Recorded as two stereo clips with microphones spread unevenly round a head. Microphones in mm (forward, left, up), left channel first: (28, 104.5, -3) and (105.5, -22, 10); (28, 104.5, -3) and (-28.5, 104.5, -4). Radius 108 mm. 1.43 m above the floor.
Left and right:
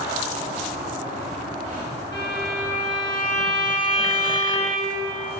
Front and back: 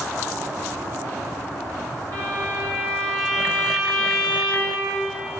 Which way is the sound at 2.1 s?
160° right.